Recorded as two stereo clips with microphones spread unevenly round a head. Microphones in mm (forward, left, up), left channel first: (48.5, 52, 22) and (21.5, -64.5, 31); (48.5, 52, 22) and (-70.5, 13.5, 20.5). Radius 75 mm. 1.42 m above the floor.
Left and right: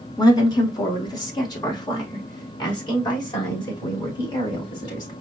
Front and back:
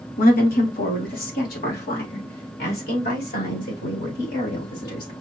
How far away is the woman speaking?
About 1.7 m.